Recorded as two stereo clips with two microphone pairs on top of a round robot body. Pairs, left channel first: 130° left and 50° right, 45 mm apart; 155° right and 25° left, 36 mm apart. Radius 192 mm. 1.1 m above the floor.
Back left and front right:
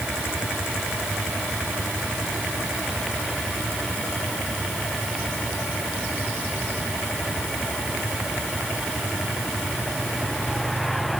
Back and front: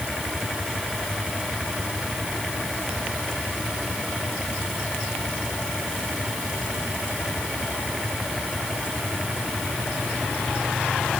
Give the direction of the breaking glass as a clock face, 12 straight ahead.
I don't hear breaking glass.